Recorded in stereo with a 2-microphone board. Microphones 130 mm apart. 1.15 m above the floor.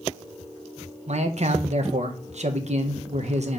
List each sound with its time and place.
1.1 s a man speaking: 60° right (ahead or behind), 1.0 m